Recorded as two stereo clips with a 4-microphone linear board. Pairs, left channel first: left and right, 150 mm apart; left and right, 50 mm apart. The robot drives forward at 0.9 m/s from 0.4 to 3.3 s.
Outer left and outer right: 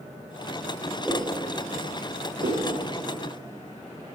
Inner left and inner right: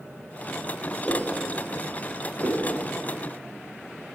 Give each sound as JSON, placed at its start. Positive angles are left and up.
{"t": 1.1, "sound": "a whoosh", "side_deg": -5, "distance_m": 3.5}
{"t": 2.4, "sound": "a whoosh", "side_deg": -60, "distance_m": 6.5}